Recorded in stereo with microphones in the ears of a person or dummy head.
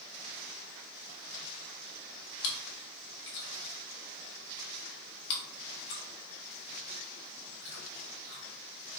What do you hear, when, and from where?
2.4 s chewing: 65° left (ahead or behind), 1.2 m